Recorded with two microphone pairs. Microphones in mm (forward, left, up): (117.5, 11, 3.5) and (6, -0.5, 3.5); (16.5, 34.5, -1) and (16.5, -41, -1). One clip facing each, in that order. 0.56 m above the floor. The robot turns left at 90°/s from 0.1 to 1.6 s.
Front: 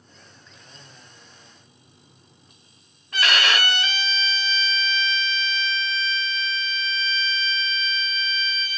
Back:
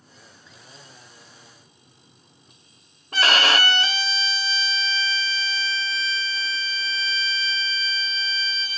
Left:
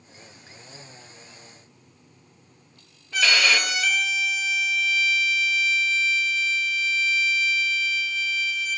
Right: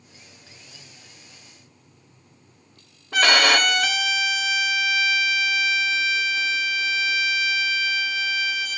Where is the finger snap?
I don't hear a finger snap.